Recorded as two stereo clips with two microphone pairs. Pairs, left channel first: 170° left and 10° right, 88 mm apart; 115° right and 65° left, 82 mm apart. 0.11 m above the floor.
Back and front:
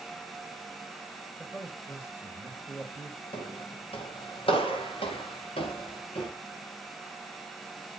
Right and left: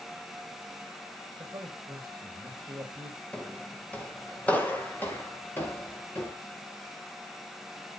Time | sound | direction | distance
1.4 | a man speaking | 105° left | 4.5 m
3.3 | footsteps | 165° left | 4.5 m